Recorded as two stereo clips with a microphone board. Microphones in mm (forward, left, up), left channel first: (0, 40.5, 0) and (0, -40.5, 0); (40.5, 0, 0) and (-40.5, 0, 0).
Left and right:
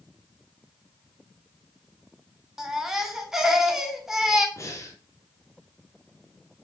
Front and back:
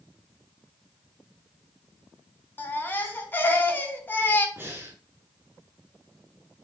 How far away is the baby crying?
About 0.6 m.